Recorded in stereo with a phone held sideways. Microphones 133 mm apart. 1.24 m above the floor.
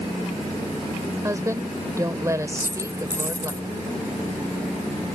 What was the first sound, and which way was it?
A woman speaking, 25° right (ahead or behind).